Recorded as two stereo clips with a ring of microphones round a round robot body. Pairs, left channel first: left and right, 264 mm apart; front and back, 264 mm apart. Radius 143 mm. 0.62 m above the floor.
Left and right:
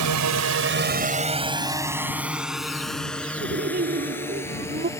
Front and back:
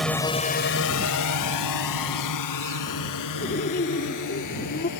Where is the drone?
90° right; by 5.0 s 10° left.